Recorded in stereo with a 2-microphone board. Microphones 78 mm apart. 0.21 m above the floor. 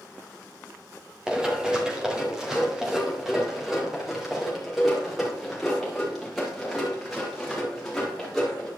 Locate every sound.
1.3 s running footsteps: 10° right (ahead or behind), 2.5 m; by 8.7 s centre (ahead or behind), 7 m